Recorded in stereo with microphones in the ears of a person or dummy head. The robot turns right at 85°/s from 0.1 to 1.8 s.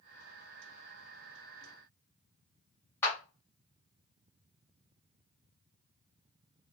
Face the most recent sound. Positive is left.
turn(degrees=15)  # may be behind; listen again after turning